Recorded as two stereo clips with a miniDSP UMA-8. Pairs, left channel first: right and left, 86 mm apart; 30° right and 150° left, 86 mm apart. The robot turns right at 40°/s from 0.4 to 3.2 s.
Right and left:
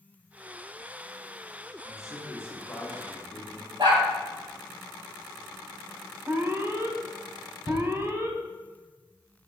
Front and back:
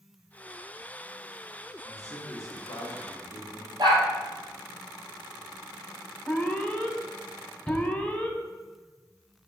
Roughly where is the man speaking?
Ahead right.